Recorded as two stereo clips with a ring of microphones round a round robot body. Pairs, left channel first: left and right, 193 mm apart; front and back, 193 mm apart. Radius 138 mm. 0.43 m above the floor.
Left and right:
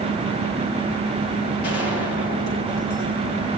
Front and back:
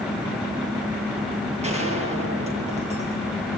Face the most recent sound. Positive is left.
turn(degrees=125)